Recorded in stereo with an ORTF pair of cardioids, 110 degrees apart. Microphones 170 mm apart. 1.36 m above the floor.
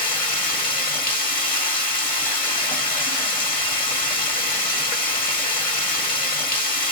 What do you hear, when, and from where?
0.0 s running water: 55° left, 1.1 m